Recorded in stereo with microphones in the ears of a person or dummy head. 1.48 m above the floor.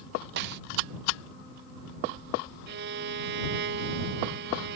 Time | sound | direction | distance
0.4 | a snare drum | 60° right (ahead or behind) | ?
2.7 | a violin | 60° right (ahead or behind) | ?